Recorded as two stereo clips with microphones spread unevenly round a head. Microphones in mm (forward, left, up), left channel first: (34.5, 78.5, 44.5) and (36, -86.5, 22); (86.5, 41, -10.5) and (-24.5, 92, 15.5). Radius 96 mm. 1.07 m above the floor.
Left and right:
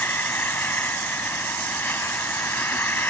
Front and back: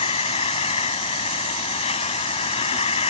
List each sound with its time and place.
0.0 s an insect: 15° left